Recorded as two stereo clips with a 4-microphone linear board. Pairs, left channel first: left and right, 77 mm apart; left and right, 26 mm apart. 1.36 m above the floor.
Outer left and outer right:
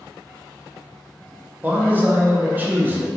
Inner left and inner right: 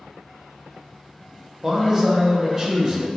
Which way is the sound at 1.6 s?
25° right (ahead or behind).